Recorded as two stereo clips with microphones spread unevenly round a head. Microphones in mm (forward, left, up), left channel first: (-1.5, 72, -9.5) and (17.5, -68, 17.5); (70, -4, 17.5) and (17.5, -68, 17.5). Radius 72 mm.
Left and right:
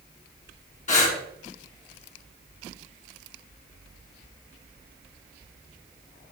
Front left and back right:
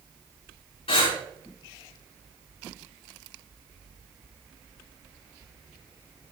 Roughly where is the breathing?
Ahead left.